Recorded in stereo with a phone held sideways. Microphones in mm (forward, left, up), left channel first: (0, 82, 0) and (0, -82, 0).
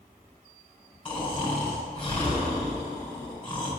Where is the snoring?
35° left (ahead or behind), 4 m.